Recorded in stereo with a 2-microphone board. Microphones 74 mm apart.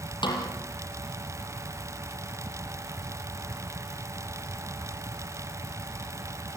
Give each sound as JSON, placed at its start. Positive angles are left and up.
{"t": 0.2, "sound": "a snare drum", "side_deg": 85, "distance_m": 6.0}